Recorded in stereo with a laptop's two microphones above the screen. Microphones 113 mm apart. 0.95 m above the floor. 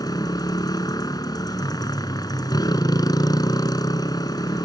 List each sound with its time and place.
0.0 s a motorcycle: 35° left (ahead or behind)